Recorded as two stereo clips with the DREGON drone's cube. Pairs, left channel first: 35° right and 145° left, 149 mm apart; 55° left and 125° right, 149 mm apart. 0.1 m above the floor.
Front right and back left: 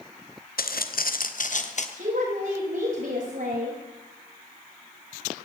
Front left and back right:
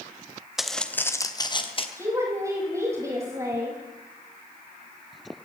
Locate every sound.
0.6 s footsteps: 35° right, 1.5 m; by 1.9 s 5° left, 2 m
2.0 s a woman speaking: 165° left, 8 m